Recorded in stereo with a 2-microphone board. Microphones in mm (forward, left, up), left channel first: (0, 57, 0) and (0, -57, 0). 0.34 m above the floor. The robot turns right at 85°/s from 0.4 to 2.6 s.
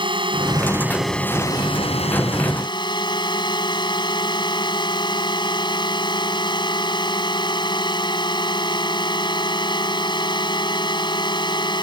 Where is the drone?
55° right; by 11.8 s 130° left.